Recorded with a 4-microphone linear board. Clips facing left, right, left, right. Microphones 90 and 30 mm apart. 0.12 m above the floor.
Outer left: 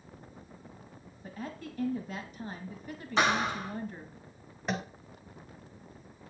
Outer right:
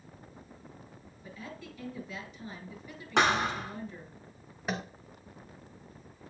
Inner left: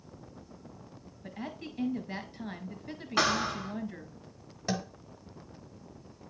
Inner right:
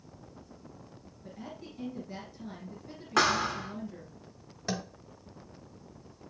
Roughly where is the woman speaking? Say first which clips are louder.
Outer left 4 dB, inner left 4 dB; left.